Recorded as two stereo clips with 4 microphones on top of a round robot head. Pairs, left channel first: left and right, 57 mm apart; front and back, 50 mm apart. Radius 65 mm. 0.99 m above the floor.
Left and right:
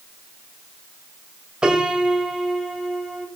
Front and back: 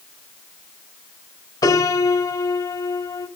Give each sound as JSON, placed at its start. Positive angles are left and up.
{"t": 1.6, "sound": "a piano", "azimuth_deg": -10, "distance_m": 1.7}